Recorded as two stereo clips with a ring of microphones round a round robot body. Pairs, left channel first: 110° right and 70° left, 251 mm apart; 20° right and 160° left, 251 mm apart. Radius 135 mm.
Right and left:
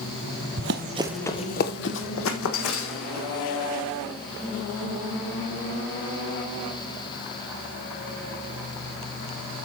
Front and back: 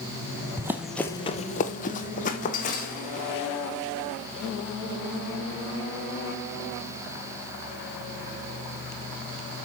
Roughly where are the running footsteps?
Left.